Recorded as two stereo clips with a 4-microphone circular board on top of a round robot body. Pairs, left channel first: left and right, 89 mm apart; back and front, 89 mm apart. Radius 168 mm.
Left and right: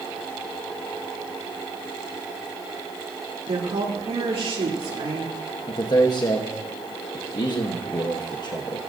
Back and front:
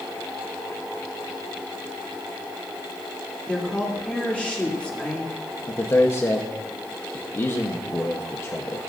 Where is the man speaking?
120° left, 1.3 m.